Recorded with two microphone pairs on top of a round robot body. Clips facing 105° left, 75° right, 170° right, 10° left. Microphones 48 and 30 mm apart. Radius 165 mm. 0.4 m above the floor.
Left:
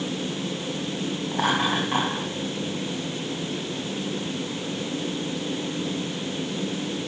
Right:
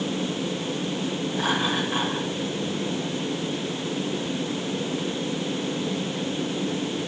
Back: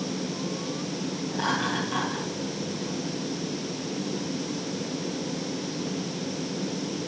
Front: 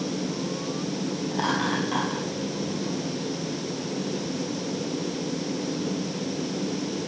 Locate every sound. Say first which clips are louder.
1.3 s laughter: left 3 dB, front 1 dB; 75° left, 5 m